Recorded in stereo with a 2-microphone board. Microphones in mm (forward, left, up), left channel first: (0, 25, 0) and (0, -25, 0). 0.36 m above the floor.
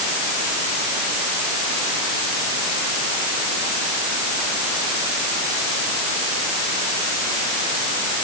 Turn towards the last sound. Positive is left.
No sound to turn to.